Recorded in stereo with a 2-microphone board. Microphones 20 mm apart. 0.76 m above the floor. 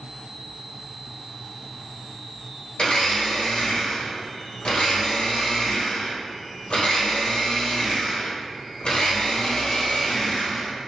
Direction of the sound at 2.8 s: 65° left (ahead or behind).